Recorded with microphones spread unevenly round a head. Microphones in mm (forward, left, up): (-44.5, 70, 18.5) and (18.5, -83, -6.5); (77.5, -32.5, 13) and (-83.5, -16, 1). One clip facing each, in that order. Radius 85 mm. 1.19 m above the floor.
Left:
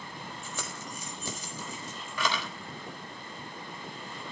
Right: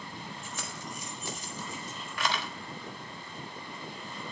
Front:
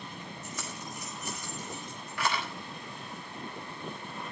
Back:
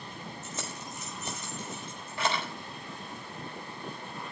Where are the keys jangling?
105° left, 4.5 m.